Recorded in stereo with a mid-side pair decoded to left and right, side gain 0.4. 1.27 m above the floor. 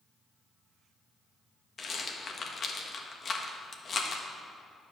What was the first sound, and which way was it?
A rattle, 45° left.